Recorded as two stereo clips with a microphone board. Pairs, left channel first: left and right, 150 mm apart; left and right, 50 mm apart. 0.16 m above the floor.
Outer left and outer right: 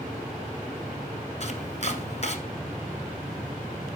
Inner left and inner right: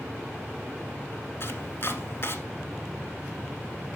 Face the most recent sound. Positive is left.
turn(degrees=50)  # may be behind; listen again after turning